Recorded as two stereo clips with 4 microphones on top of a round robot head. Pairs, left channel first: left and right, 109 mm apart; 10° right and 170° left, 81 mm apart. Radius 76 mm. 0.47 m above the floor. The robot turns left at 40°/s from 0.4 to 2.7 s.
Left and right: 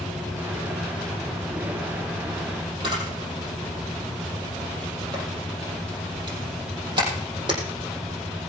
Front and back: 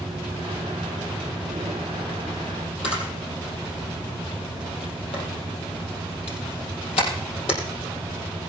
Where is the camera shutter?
35° right, 4.5 m.